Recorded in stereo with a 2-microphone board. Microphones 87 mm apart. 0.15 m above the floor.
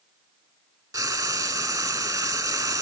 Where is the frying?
45° right (ahead or behind), 0.9 m.